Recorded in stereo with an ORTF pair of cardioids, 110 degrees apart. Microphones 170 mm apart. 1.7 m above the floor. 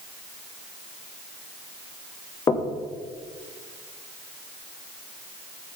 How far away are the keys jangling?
I don't hear keys jangling.